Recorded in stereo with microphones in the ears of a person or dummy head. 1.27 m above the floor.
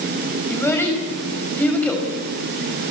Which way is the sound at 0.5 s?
15° left (ahead or behind).